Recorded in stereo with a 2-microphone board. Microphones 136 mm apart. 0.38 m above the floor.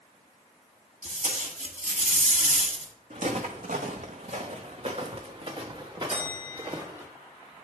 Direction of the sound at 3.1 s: 70° right (ahead or behind).